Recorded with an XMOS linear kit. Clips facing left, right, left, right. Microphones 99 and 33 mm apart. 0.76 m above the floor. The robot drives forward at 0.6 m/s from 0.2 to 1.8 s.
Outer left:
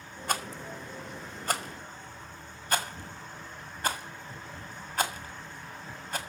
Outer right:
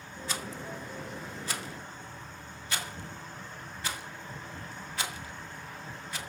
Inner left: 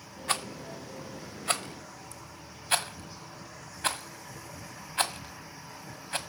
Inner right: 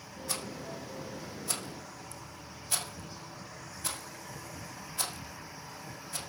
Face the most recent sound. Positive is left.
turn(degrees=50)  # may be behind; listen again after turning